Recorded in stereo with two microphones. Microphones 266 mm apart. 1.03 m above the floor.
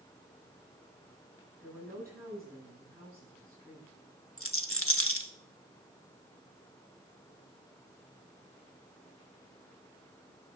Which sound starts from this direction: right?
A woman speaking, at 1.6 s.